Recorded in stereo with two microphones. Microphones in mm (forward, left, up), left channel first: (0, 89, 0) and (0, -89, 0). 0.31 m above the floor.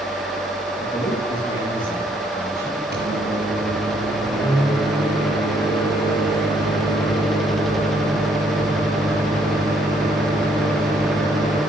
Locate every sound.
0.8 s a man speaking: 30° left (ahead or behind), 8.5 m; by 2.8 s 15° left (ahead or behind), 10 m
2.9 s a microwave: 65° right (ahead or behind), 6.5 m